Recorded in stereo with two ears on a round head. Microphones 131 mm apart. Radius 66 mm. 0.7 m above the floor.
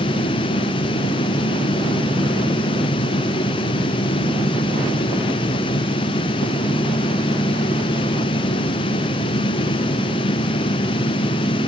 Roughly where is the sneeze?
No sneeze in this recording.